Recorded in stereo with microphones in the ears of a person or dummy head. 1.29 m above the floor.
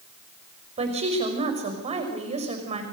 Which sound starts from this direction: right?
A woman speaking, at 0.8 s.